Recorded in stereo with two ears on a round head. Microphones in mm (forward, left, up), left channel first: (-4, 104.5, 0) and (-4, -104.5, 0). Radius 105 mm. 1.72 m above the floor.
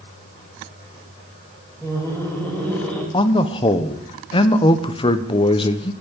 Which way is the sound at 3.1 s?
25° left (ahead or behind).